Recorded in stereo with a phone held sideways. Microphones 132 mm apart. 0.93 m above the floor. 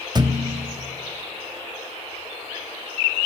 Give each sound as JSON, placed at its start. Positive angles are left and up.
{"t": 0.1, "sound": "a thud", "side_deg": -35, "distance_m": 0.8}